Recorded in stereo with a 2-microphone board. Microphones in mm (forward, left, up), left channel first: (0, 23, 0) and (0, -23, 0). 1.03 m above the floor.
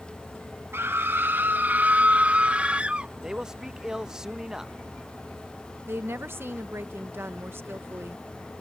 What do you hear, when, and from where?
0.7 s a scream: 55° right (ahead or behind); by 3.1 s 25° right (ahead or behind)
3.2 s a man speaking: 15° right (ahead or behind)
5.9 s a woman speaking: 55° right (ahead or behind)